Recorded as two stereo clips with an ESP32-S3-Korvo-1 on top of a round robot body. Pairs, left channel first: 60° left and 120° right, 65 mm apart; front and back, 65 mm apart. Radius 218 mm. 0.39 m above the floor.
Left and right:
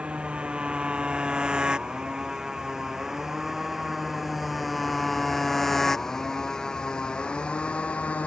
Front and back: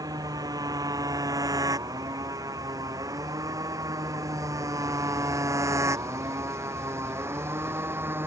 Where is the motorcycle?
165° left; by 8.3 s 125° left.